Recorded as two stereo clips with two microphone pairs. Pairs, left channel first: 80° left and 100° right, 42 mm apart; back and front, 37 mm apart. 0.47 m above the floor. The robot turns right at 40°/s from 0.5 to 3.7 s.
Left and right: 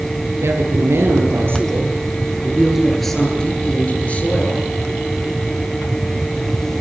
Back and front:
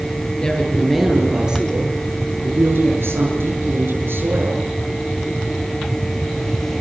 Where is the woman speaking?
110° right, 8 m; by 4.7 s 20° left, 8 m.